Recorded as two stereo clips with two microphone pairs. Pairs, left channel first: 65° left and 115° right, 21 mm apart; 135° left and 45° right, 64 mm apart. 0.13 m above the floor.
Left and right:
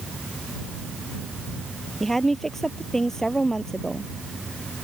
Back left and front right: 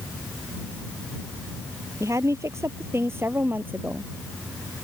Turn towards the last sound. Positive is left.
turn(degrees=15)